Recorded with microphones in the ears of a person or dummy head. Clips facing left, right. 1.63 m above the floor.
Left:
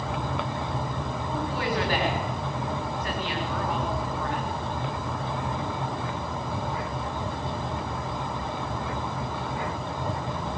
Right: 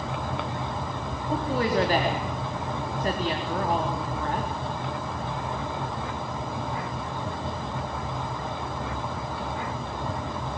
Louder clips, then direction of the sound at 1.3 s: Right 5 dB; 35° right (ahead or behind).